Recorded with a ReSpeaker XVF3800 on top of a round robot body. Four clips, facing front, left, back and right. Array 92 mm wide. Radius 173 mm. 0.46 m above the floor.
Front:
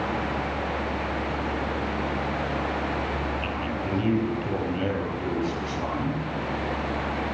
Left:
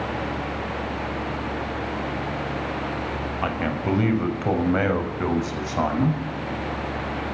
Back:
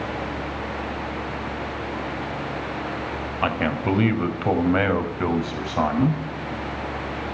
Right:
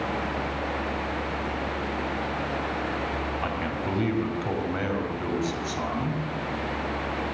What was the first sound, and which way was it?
A man speaking, 165° left.